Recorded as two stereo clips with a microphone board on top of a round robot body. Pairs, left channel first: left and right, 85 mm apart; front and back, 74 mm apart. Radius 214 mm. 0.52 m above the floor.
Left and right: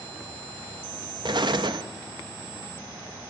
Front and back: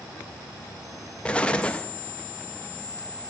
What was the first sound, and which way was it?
An explosion, 75° right.